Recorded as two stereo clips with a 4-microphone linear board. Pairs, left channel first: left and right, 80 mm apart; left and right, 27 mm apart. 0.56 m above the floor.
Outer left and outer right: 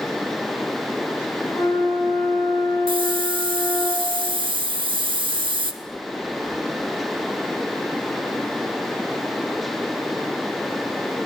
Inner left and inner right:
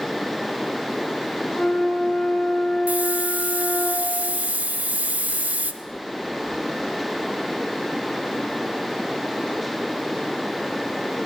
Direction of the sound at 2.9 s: 70° right (ahead or behind).